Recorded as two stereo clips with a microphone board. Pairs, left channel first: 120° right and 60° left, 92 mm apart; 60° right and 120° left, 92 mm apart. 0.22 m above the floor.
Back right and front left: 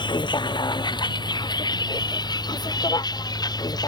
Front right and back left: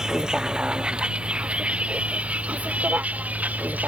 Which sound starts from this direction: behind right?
A vehicle, at 0.0 s.